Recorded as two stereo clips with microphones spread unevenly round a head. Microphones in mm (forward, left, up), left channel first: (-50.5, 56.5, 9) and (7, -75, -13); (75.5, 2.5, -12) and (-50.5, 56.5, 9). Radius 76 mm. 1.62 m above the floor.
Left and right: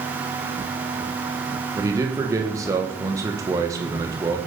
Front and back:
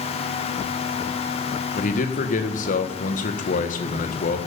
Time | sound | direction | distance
1.8 | a man speaking | 5° left | 1.9 m